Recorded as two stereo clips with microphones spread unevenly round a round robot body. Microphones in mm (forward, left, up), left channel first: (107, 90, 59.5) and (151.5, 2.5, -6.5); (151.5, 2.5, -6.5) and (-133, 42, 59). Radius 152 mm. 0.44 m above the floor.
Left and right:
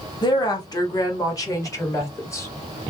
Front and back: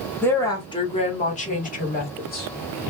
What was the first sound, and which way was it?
A woman speaking, 35° left.